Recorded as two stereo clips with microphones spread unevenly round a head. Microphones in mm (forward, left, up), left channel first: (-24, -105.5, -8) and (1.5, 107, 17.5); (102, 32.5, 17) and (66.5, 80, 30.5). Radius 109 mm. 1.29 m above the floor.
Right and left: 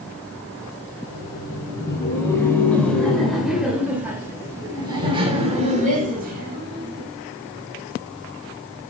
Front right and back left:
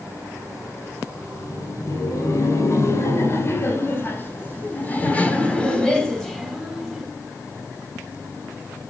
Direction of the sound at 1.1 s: 25° right.